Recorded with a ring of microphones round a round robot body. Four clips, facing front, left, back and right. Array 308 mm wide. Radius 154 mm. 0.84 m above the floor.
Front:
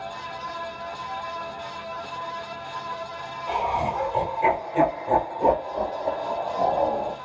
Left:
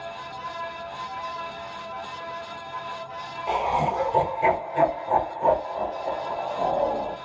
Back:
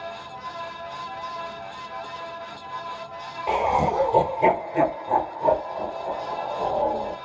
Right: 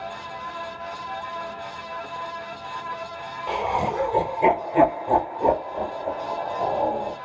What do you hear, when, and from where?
3.5 s laughter: 170° right, 1.3 m; by 7.2 s 20° right, 2 m